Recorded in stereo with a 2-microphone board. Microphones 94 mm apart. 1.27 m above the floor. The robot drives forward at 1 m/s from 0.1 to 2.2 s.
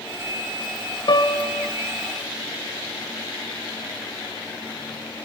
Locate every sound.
1.1 s a piano: 55° left (ahead or behind), 0.9 m; by 1.7 s 35° left (ahead or behind), 1.3 m